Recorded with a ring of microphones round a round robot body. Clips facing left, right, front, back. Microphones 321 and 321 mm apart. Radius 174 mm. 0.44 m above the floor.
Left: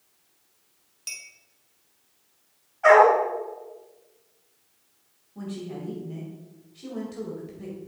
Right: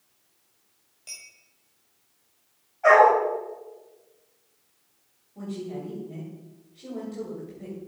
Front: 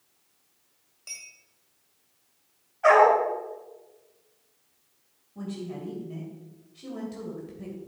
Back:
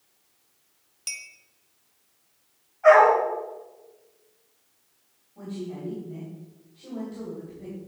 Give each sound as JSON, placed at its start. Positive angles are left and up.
{"t": 1.1, "sound": "a clink", "azimuth_deg": 155, "distance_m": 1.5}
{"t": 2.8, "sound": "a dog barking", "azimuth_deg": 30, "distance_m": 4.0}
{"t": 5.3, "sound": "a woman speaking", "azimuth_deg": 30, "distance_m": 2.5}